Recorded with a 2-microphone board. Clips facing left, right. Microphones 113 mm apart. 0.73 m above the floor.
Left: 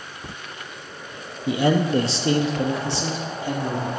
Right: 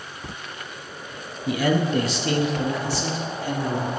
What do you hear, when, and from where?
1.5 s a man speaking: 25° left (ahead or behind), 0.6 m; by 3.9 s 20° left (ahead or behind), 1.4 m